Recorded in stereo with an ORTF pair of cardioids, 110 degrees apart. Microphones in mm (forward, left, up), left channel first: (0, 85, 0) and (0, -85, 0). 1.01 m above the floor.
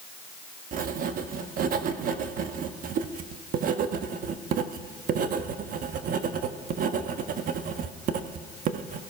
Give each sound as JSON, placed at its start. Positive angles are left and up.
{"t": 0.7, "sound": "writing", "azimuth_deg": -55, "distance_m": 1.1}